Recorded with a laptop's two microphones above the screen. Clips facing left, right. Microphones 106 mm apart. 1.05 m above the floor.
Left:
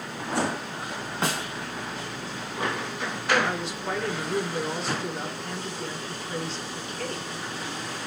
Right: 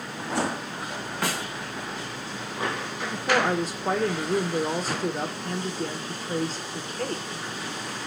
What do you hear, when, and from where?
1.2 s a snare drum: 25° left (ahead or behind), 1.4 m
3.1 s a woman speaking: 40° right (ahead or behind), 0.6 m